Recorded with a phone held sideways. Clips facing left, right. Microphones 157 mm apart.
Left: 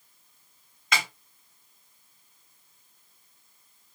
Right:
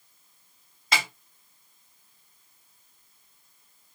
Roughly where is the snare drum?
Right.